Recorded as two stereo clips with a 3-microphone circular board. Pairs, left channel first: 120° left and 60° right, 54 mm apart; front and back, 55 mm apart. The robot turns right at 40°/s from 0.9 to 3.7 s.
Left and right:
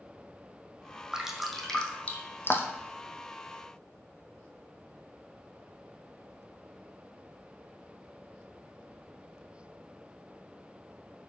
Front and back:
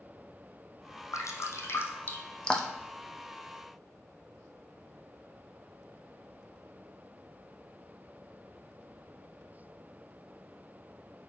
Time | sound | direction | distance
1.1 | dripping | 20° left | 1.4 m